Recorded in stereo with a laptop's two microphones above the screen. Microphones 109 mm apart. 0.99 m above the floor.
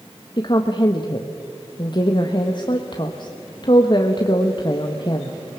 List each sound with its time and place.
0.4 s a woman speaking: 45° left (ahead or behind), 1.3 m